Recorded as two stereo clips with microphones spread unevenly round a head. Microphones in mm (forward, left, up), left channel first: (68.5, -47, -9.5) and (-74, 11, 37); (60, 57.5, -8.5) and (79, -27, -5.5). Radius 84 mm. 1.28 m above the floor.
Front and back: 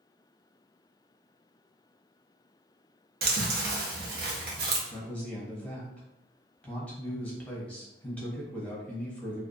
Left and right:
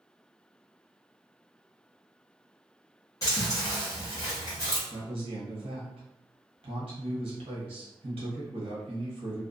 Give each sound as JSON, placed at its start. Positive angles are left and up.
{"t": 3.2, "sound": "chewing", "azimuth_deg": 170, "distance_m": 0.7}
{"t": 4.9, "sound": "a man speaking", "azimuth_deg": -105, "distance_m": 1.0}